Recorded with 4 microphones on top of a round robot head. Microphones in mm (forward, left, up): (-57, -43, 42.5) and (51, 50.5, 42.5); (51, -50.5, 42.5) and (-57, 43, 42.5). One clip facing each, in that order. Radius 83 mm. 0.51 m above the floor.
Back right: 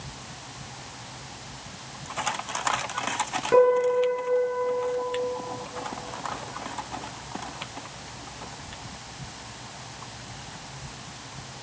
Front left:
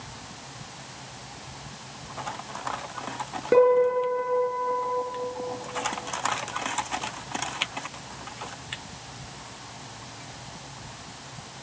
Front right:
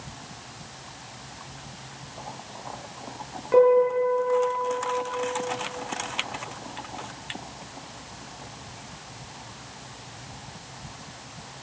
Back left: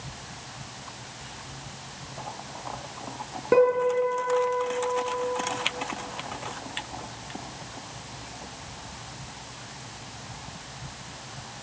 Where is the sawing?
I don't hear sawing.